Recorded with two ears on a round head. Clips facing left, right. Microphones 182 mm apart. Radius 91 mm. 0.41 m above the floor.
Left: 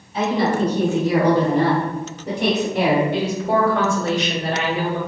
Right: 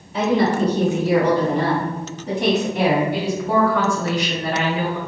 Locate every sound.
0.1 s a woman speaking: 55° right (ahead or behind), 1.2 m; by 3.0 s 65° left (ahead or behind), 2 m
3.1 s a woman speaking: 25° left (ahead or behind), 1.4 m